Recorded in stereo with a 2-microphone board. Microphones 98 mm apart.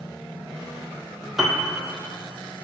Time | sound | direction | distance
1.4 | a piano | 5° right (ahead or behind) | 0.7 m